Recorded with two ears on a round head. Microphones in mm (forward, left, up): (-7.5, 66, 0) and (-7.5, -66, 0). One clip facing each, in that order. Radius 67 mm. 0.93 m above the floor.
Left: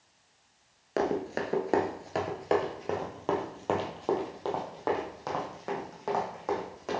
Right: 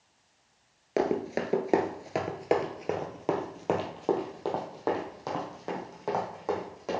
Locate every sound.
1.0 s running footsteps: 15° right (ahead or behind), 0.9 m; by 7.0 s 10° right (ahead or behind), 3 m